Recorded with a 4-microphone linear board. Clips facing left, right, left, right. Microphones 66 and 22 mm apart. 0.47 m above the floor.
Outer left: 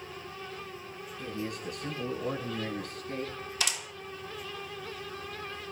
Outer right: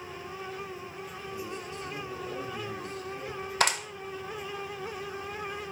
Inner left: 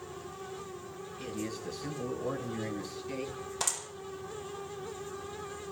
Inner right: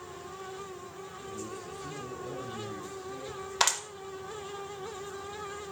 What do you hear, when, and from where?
1.2 s a man speaking: 80° left, 9 m; by 3.4 s 75° left (ahead or behind), 12 m
3.6 s a clap: 55° right (ahead or behind), 1.7 m